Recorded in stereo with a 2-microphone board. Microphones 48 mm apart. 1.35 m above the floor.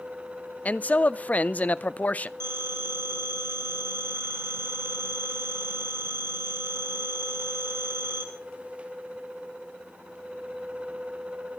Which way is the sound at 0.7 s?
35° left (ahead or behind).